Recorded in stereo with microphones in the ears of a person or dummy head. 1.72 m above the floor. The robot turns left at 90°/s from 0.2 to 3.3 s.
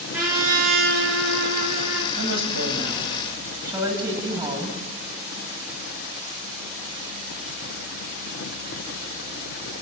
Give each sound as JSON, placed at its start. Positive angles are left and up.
{"t": 0.1, "sound": "a trumpet", "azimuth_deg": -5, "distance_m": 4.5}
{"t": 2.2, "sound": "a woman speaking", "azimuth_deg": -70, "distance_m": 9.5}